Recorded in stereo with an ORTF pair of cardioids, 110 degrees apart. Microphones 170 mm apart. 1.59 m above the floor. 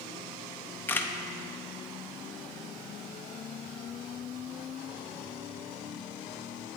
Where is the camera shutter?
10° left, 0.5 m.